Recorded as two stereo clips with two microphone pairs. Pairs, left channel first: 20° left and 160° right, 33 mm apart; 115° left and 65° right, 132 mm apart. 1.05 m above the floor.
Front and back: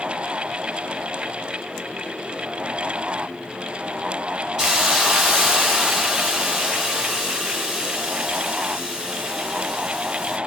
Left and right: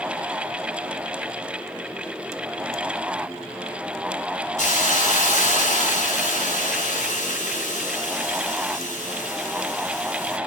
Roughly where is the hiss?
Behind left.